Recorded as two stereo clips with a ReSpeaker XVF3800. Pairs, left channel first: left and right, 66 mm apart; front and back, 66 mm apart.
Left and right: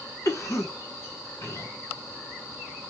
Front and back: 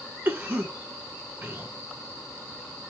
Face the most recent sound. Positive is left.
turn(degrees=125)